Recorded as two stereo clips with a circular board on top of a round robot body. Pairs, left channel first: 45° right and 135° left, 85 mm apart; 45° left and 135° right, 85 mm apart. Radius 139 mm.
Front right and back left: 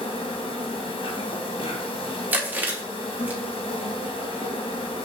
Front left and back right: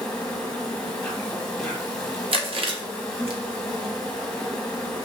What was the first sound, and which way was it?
An insect, 35° right.